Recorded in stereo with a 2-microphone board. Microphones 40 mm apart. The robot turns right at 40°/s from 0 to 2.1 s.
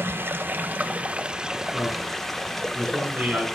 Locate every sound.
0.0 s running water: 75° right, 0.9 m; by 3.5 s 10° left, 0.9 m
1.7 s a man speaking: 50° right (ahead or behind), 6.5 m; by 3.5 s 35° right (ahead or behind), 6.5 m